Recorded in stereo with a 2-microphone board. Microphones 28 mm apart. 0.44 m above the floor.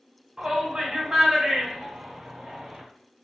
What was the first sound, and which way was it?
A shout, 25° right (ahead or behind).